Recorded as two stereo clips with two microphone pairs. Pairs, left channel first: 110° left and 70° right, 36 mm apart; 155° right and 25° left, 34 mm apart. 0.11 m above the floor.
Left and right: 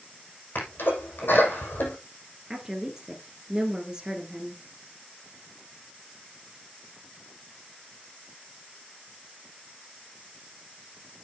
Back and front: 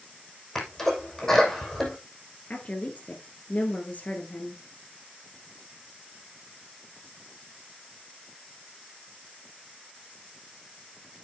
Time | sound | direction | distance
0.6 | a sneeze | 125° left | 6 m
2.5 | a woman speaking | 140° right | 1.6 m